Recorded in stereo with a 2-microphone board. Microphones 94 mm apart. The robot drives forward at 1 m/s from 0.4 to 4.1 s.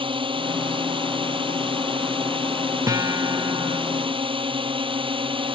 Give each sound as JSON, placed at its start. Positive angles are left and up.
{"t": 0.0, "sound": "a drone", "side_deg": -65}
{"t": 2.9, "sound": "a guitar", "side_deg": -35}